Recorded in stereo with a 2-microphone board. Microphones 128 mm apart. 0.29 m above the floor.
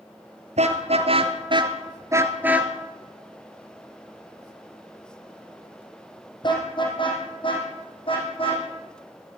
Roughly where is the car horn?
Right.